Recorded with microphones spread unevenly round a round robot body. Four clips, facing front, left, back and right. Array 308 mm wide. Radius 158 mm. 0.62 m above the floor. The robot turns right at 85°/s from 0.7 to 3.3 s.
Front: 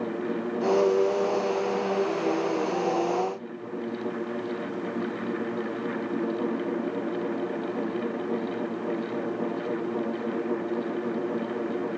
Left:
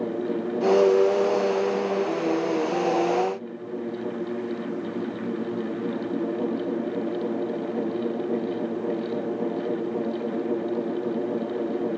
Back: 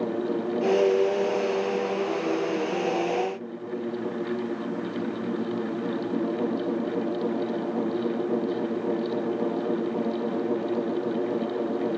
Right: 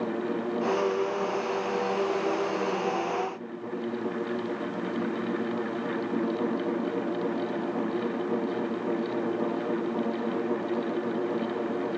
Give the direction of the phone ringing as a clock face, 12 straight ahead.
I don't hear a phone ringing.